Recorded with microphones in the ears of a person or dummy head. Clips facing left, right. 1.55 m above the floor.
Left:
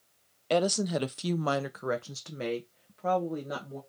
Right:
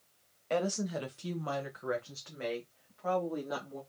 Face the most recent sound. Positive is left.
turn(degrees=30)  # may be behind; listen again after turning